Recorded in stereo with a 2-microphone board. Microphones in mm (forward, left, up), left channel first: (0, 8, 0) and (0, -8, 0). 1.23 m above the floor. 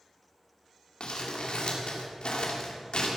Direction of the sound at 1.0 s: 75° left (ahead or behind).